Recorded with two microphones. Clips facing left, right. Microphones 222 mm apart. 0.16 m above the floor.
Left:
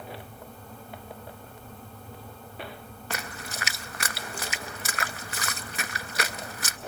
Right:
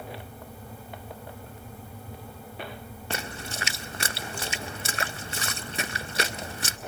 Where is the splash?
30° right (ahead or behind), 0.6 m.